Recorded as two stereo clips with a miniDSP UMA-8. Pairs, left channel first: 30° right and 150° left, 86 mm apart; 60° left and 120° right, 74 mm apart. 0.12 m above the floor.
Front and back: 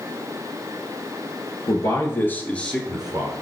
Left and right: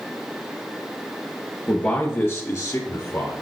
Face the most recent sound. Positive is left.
turn(degrees=75)